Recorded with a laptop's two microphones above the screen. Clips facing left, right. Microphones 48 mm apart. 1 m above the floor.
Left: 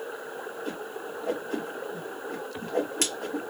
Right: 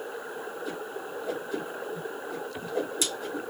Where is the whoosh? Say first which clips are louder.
Even; 60° left (ahead or behind), 2.5 m.